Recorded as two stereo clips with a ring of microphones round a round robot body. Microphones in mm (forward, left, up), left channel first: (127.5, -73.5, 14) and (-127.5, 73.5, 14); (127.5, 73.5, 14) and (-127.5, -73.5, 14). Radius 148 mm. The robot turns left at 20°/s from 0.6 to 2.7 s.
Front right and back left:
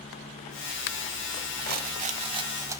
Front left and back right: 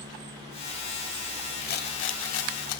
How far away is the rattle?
About 0.9 m.